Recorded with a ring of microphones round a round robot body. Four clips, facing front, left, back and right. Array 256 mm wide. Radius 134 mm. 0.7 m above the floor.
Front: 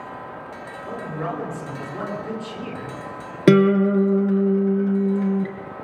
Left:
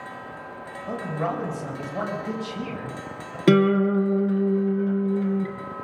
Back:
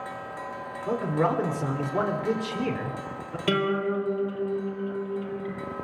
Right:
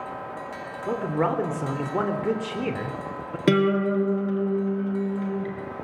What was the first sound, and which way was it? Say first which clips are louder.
A man speaking: right 4 dB, back 4 dB; 115° right.